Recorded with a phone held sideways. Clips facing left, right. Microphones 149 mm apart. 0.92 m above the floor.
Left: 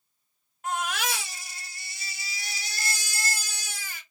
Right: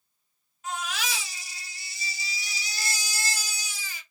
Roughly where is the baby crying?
Left.